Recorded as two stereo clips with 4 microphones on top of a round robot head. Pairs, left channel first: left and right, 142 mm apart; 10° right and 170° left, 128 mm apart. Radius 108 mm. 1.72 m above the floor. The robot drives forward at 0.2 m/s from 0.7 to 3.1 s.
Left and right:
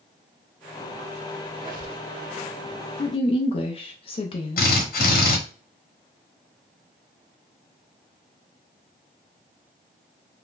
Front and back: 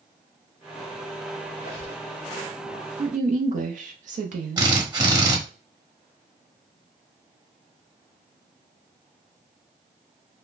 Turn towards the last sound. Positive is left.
turn(degrees=110)